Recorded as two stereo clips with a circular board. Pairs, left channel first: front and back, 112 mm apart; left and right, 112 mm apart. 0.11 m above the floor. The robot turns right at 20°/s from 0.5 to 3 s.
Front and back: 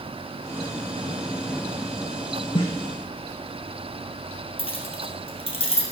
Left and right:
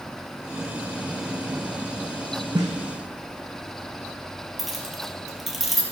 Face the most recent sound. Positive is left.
turn(degrees=0)